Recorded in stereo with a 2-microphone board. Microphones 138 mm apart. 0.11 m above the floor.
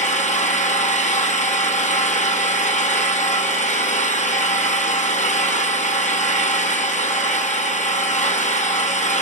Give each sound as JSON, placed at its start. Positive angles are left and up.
{"t": 0.0, "sound": "an engine running", "side_deg": 60, "distance_m": 1.1}